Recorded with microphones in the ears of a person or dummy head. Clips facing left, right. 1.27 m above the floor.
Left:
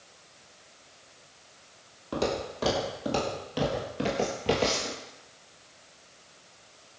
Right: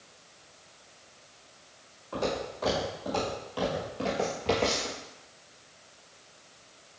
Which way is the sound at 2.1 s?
50° left (ahead or behind).